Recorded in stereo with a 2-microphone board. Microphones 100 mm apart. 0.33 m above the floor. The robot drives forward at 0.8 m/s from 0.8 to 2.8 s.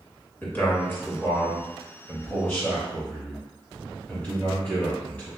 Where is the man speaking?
20° left (ahead or behind), 1.4 m; by 5.3 s 15° left (ahead or behind), 1.8 m.